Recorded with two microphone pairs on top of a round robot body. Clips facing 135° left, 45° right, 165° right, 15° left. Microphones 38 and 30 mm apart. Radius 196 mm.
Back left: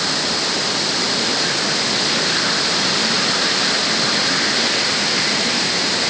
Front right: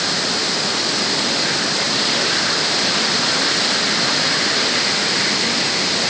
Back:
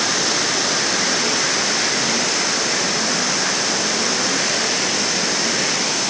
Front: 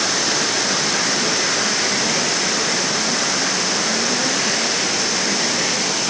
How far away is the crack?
I don't hear a crack.